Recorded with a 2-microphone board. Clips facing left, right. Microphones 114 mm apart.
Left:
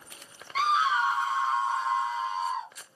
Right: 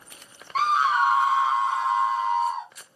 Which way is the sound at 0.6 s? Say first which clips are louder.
Right 4 dB; 45° right (ahead or behind).